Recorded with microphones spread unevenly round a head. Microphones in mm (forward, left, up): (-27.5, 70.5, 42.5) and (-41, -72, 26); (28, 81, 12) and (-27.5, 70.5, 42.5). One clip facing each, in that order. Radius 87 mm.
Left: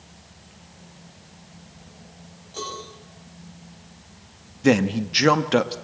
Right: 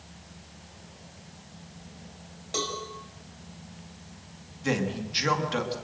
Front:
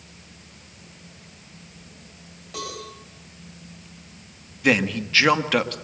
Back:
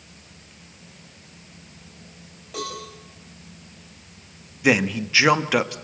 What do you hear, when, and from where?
2.5 s a cowbell: 80° right, 8.5 m
4.6 s a man speaking: 110° left, 1.7 m